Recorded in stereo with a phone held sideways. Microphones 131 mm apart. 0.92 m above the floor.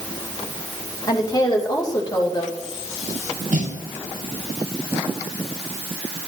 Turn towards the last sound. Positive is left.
turn(degrees=-75)  # may be behind; listen again after turning